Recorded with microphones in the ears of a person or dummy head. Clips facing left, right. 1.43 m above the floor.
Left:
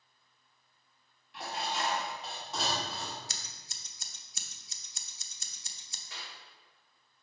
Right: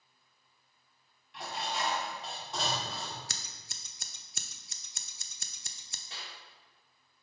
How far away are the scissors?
About 0.7 m.